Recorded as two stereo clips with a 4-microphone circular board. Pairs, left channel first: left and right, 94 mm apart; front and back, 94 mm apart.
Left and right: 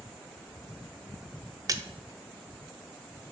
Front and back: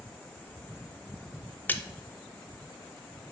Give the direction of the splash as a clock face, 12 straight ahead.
2 o'clock.